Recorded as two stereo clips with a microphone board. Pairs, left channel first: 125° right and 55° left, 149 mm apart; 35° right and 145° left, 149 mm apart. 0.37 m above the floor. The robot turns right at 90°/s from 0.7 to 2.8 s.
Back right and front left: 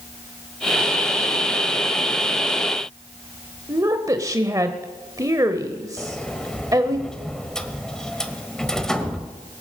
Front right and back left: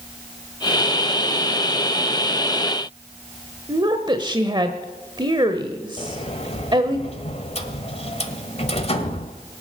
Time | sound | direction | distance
3.7 | a woman speaking | 110° left | 1.0 m
6.0 | a sliding door | 40° right | 1.3 m